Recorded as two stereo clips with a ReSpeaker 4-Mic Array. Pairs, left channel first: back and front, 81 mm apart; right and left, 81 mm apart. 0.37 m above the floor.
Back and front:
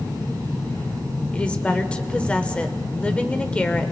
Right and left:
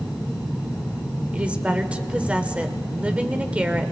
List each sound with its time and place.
1.3 s a woman speaking: 135° left, 0.8 m